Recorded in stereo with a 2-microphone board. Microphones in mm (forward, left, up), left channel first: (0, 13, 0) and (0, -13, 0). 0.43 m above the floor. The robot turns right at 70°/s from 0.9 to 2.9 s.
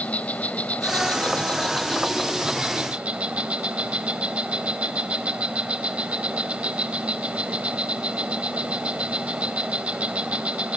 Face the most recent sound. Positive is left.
turn(degrees=-125)